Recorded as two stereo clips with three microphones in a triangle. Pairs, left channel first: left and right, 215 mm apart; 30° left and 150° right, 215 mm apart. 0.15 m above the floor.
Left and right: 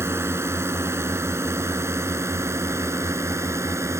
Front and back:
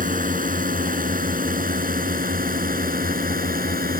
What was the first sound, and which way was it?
A drone, 160° right.